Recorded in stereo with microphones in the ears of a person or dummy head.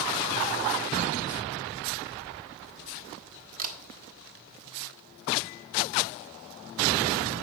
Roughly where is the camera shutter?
Right.